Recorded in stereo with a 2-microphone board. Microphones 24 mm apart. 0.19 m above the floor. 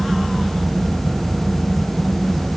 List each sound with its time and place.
Only background noise.